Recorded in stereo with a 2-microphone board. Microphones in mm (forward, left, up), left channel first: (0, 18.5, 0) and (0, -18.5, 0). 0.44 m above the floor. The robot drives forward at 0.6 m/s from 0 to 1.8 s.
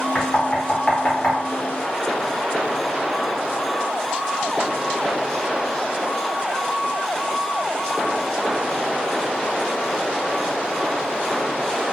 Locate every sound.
0.1 s knocking: 25° left (ahead or behind), 1.0 m; by 1.4 s 30° left (ahead or behind), 1.0 m